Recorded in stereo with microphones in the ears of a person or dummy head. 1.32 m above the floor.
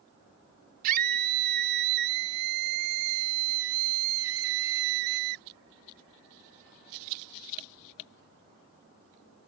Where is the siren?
I don't hear a siren.